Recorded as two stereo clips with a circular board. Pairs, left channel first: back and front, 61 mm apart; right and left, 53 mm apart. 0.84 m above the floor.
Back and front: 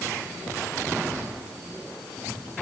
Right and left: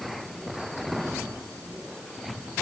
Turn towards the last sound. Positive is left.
No sound to turn to.